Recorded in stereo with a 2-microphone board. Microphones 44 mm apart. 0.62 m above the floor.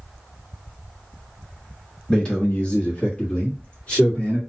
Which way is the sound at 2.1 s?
15° left (ahead or behind).